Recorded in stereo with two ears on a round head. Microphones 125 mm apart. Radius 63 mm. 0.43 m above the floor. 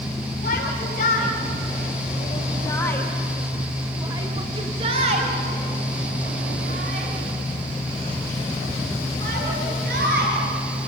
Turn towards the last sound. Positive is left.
turn(degrees=-70)  # may be behind; listen again after turning